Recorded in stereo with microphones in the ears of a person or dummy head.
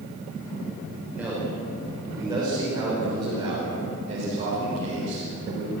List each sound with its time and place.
1.1 s a man speaking: 5° right (ahead or behind), 5 m; by 5.7 s 40° right (ahead or behind), 5.5 m